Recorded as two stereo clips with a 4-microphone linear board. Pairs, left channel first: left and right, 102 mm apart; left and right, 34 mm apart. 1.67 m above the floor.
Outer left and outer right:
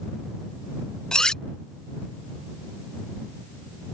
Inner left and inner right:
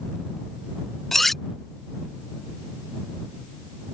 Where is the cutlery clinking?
5° left (ahead or behind).